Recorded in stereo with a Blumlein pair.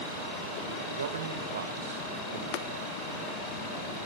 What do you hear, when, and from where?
0.9 s a man speaking: 65° right, 4 m
2.5 s tapping: 45° left, 0.6 m